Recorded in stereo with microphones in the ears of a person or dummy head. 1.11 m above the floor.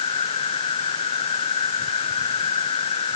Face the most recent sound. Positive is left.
turn(degrees=25)  # may be behind; listen again after turning